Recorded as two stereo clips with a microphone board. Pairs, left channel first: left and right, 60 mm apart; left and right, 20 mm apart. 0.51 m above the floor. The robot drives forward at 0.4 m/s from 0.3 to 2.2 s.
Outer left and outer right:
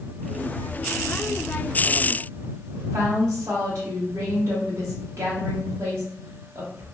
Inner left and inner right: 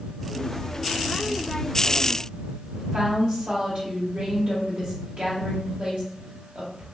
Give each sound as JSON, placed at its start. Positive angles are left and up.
{"t": 2.7, "sound": "a woman speaking", "side_deg": -60, "distance_m": 1.5}